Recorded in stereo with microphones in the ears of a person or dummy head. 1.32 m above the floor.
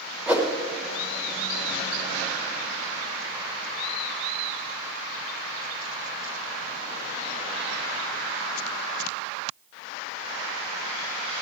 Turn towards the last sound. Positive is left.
turn(degrees=-10)  # may be behind; listen again after turning